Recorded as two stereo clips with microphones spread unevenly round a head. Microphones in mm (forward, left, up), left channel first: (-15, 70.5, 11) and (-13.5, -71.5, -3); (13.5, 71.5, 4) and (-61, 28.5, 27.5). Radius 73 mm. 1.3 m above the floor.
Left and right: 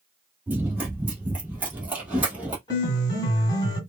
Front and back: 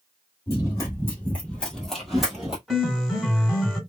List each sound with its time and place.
0.5 s running footsteps: 15° right, 1.3 m; by 2.6 s 170° right, 1.4 m
2.7 s a piano: 135° left, 1.6 m